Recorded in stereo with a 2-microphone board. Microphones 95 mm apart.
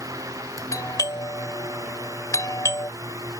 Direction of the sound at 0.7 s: 40° left (ahead or behind).